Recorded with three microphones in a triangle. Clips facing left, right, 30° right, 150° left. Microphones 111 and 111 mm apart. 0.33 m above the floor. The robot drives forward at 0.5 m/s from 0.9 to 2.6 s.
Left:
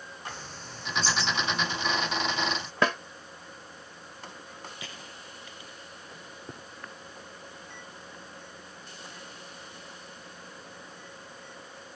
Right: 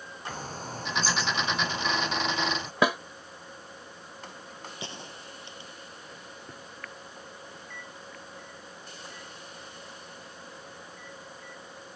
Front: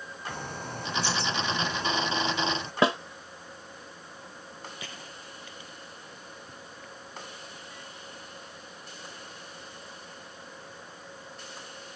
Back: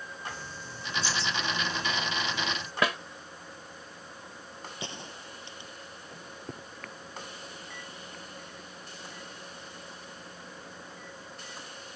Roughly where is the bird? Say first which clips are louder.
Right 9 dB, front 5 dB; ahead right.